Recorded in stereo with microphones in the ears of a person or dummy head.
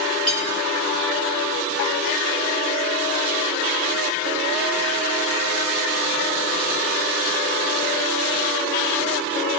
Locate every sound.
0.3 s cutlery clinking: 40° left (ahead or behind), 3 m